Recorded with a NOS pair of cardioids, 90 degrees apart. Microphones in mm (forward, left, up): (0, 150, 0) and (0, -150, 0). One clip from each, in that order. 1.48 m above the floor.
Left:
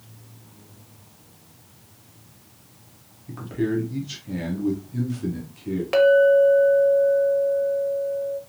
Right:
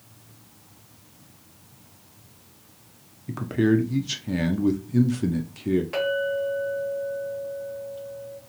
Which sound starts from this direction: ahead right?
A man speaking, at 3.3 s.